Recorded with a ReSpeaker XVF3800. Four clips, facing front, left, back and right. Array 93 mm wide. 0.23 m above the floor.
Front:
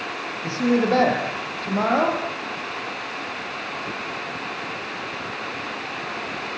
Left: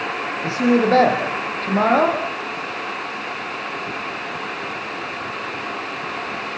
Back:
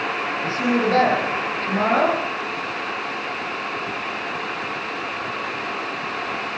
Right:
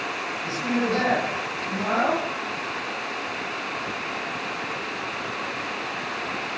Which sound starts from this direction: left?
A woman speaking, at 0.4 s.